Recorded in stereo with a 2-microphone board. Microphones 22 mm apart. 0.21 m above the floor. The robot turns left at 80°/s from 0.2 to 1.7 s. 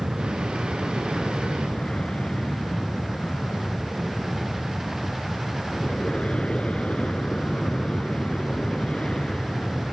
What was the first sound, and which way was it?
An aircraft, 145° right.